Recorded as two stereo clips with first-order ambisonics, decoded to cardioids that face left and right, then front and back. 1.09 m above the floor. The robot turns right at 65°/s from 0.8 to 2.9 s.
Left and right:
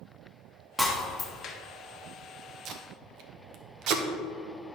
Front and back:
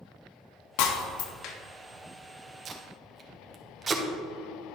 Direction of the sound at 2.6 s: 125° right.